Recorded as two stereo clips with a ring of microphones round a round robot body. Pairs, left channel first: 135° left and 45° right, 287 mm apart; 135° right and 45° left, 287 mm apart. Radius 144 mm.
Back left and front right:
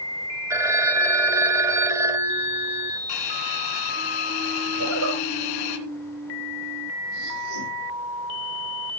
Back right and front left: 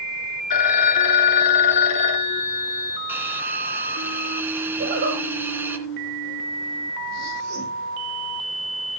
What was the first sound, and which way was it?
A phone ringing, 125° right.